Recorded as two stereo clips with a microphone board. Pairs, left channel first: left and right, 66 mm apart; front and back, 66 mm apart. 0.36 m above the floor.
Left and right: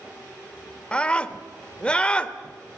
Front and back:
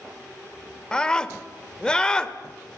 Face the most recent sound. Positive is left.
turn(degrees=50)